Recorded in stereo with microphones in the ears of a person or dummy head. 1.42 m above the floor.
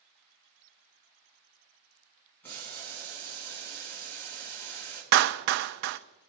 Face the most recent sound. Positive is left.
turn(degrees=-60)  # may be behind; listen again after turning